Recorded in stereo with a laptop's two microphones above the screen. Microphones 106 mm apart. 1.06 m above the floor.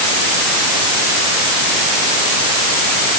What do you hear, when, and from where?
Only background noise.